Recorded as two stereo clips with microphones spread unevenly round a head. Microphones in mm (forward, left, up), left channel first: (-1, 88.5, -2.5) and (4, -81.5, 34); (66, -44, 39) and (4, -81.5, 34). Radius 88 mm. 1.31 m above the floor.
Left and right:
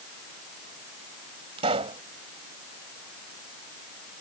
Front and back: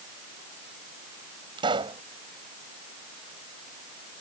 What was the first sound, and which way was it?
A pop, 145° right.